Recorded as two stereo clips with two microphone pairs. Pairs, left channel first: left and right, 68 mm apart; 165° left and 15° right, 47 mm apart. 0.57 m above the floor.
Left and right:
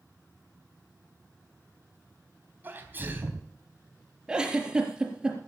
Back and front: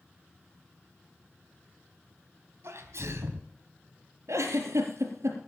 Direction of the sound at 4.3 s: 10° right.